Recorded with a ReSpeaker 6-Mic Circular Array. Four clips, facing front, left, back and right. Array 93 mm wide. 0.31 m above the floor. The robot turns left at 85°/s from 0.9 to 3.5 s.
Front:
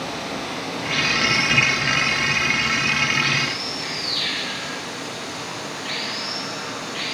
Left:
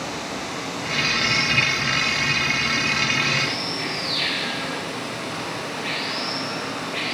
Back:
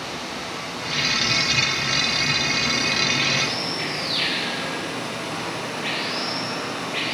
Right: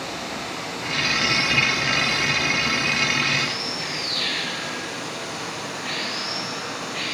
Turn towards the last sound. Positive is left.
turn(degrees=150)